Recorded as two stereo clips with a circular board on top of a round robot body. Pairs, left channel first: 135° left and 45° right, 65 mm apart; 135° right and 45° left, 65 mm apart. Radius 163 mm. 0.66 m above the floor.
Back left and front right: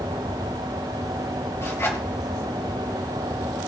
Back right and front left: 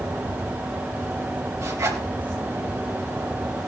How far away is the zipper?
About 2.5 m.